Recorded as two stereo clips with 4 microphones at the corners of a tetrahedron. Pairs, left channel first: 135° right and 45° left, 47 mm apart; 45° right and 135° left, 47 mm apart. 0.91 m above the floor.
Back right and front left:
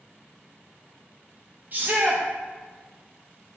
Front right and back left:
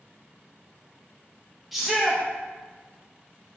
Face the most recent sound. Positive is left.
turn(degrees=45)